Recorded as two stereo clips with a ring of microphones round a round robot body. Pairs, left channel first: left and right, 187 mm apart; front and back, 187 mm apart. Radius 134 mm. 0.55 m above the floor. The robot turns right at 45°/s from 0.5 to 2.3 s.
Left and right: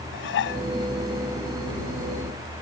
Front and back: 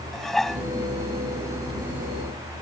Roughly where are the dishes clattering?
Left.